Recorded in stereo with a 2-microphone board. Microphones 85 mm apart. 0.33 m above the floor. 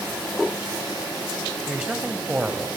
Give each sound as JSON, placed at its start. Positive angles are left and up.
{"t": 1.7, "sound": "a man speaking", "side_deg": -15, "distance_m": 1.7}